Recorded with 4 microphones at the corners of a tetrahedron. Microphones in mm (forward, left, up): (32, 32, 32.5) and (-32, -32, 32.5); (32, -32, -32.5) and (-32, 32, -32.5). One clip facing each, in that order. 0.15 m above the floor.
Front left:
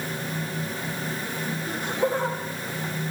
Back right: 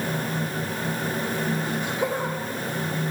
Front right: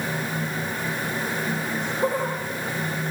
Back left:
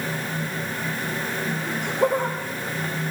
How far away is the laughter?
About 5 m.